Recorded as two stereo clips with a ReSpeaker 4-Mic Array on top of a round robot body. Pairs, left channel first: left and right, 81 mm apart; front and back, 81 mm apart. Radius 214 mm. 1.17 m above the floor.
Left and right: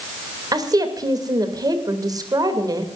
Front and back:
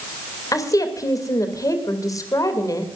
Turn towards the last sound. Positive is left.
turn(degrees=-45)